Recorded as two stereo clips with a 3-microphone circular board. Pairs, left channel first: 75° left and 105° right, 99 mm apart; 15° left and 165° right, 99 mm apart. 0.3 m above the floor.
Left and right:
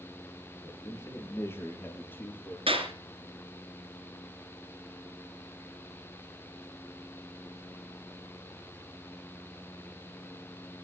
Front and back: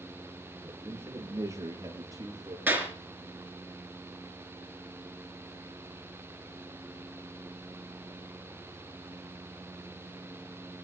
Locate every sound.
0.6 s a man speaking: 130° left, 5.5 m; by 2.6 s 145° left, 6.5 m
2.7 s a clap: 90° right, 3.5 m